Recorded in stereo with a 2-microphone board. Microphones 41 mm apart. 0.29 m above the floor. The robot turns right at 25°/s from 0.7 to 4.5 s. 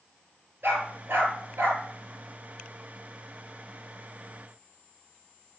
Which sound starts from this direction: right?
A dog barking, at 0.6 s.